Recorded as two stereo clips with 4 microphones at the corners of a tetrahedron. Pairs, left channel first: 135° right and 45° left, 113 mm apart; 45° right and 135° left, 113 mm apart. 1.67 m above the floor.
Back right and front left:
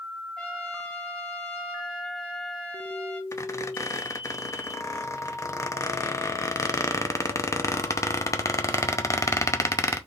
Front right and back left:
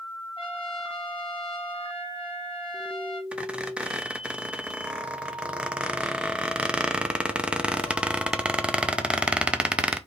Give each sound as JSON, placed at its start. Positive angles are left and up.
{"t": 0.4, "sound": "a trumpet", "azimuth_deg": -55, "distance_m": 1.3}
{"t": 3.3, "sound": "a squeak", "azimuth_deg": -155, "distance_m": 0.6}